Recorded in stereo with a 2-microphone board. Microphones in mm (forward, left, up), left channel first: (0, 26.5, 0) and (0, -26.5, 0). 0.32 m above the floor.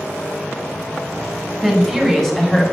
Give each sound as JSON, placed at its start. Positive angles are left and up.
{"t": 1.6, "sound": "a woman speaking", "side_deg": 5, "distance_m": 3.5}